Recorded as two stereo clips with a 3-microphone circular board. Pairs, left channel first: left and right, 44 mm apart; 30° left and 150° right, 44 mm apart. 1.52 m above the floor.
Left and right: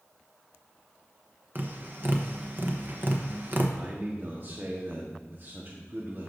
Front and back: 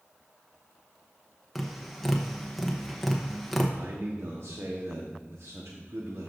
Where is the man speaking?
130° right, 1.1 m.